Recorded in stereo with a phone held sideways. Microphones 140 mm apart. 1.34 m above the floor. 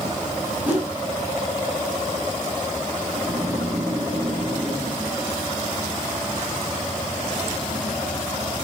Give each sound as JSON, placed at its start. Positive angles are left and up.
{"t": 0.7, "sound": "a whoosh", "side_deg": -10, "distance_m": 2.5}
{"t": 3.1, "sound": "snoring", "side_deg": -5, "distance_m": 3.0}